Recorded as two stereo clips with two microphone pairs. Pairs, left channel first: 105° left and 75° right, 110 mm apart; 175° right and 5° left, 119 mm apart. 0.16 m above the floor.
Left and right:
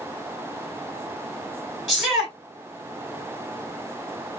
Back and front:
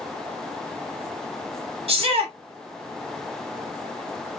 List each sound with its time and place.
1.9 s a shout: 5° left, 1.9 m